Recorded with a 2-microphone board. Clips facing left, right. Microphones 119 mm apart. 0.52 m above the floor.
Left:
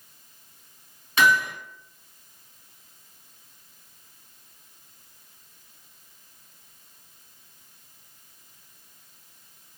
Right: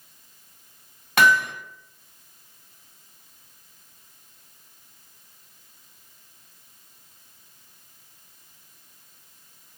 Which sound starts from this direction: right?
Hammering, at 1.2 s.